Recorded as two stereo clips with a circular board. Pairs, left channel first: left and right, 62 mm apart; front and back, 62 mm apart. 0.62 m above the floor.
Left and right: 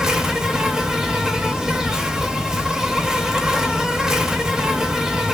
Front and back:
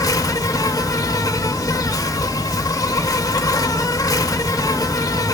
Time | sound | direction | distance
0.0 | an insect | 10° right | 0.8 m